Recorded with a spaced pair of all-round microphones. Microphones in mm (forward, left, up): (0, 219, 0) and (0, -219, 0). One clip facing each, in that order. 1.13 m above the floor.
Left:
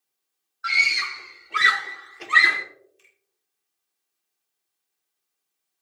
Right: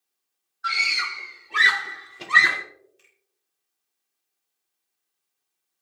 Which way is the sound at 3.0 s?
70° right (ahead or behind).